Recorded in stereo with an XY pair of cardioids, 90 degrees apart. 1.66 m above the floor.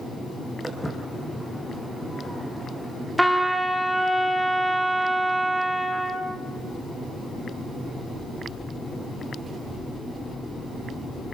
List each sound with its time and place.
0.6 s footsteps: 10° left, 6.5 m
3.2 s a trumpet: 5° right, 2.5 m